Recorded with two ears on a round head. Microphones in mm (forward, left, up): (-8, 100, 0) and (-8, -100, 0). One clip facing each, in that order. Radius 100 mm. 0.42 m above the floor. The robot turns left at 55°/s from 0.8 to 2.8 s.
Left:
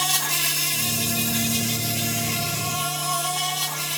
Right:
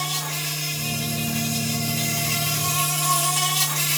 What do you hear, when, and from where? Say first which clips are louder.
0.0 s an insect: left 1 dB; 80° left, 2.5 m; by 4.0 s 30° right, 2.5 m